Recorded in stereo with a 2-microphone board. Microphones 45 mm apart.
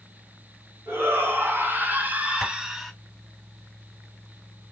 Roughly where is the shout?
Right.